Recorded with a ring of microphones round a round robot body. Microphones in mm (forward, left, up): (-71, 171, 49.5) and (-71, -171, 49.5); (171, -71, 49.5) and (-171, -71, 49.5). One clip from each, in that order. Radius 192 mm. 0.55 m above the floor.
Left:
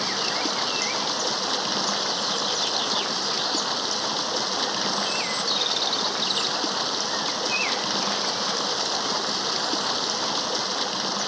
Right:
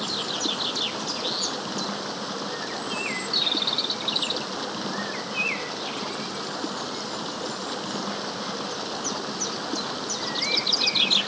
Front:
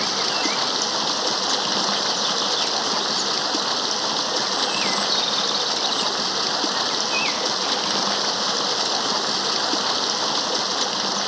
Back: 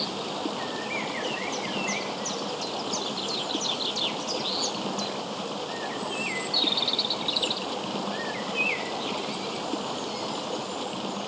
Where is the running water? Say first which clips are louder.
Left 2 dB, front 9 dB; 30° left.